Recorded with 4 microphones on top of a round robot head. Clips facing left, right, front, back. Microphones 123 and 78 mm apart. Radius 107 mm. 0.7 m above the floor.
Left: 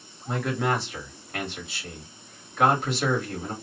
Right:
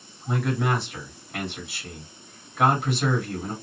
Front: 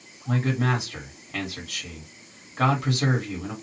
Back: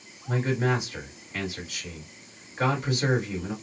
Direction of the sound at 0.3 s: 5° right.